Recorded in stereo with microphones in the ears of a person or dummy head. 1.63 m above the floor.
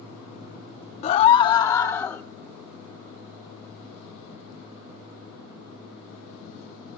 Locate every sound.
1.0 s a scream: 40° left (ahead or behind), 0.9 m; by 2.2 s 15° left (ahead or behind), 1.6 m